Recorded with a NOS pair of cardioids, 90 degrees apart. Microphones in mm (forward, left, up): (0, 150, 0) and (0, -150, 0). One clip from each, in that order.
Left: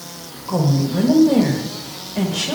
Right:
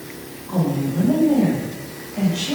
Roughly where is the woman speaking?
Ahead left.